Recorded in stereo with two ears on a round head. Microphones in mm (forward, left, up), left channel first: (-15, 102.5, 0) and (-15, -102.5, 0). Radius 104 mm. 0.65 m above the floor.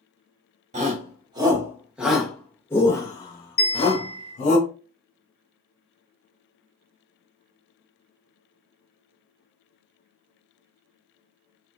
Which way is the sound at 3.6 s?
30° left (ahead or behind).